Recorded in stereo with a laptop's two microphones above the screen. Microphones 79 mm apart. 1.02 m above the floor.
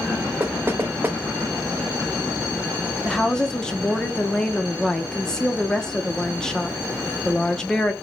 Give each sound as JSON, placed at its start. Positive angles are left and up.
{"t": 0.4, "sound": "knocking", "side_deg": -25, "distance_m": 0.6}
{"t": 3.0, "sound": "a woman speaking", "side_deg": 5, "distance_m": 0.7}